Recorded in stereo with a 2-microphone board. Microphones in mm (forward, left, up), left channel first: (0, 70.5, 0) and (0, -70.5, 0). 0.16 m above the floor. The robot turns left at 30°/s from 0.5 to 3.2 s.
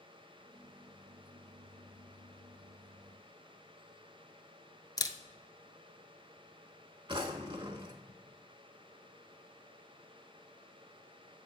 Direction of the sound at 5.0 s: 30° left (ahead or behind).